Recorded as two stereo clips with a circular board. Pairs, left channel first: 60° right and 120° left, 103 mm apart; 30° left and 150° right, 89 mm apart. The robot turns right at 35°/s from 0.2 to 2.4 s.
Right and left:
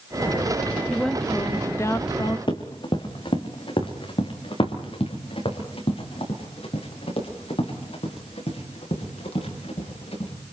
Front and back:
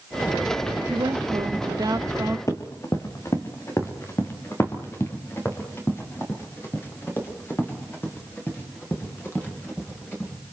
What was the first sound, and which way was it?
A woman speaking, 150° right.